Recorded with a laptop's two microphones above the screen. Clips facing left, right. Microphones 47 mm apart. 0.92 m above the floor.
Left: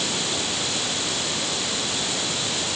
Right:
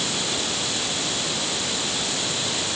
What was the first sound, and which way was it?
Only background noise.